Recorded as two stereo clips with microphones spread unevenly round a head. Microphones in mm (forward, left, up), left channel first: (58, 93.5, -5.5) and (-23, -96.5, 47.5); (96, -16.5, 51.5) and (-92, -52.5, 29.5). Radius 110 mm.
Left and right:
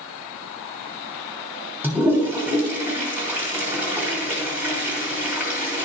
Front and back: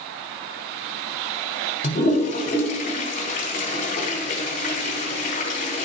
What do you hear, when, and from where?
1.8 s a toilet flushing: 35° right, 3 m